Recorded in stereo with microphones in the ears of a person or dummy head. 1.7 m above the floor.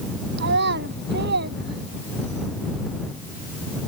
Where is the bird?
No bird in this recording.